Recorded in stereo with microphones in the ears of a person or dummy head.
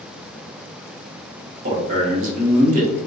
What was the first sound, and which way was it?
A man speaking, 45° right (ahead or behind).